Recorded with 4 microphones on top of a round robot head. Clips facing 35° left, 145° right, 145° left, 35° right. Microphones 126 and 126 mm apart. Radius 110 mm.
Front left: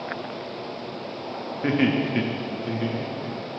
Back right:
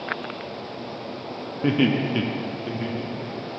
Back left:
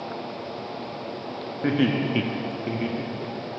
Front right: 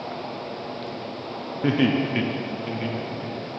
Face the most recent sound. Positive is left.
turn(degrees=120)